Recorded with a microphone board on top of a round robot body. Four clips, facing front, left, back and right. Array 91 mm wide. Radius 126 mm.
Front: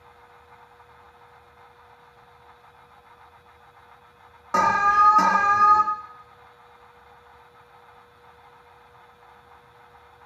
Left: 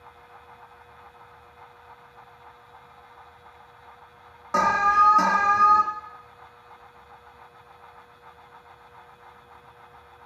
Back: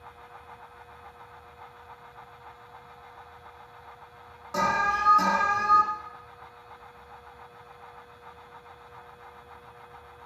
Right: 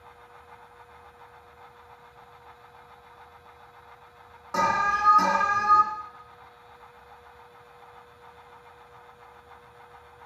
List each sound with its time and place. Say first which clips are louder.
4.5 s an alarm: left 5 dB, front 7 dB; 25° left, 0.8 m